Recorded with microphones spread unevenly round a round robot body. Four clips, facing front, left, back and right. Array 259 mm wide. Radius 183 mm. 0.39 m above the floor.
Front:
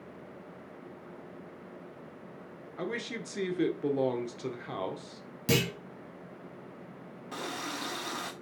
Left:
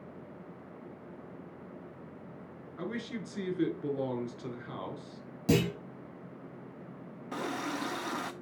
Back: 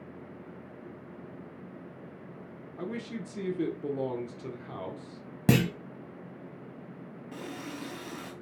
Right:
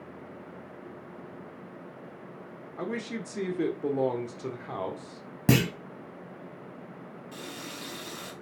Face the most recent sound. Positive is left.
turn(degrees=70)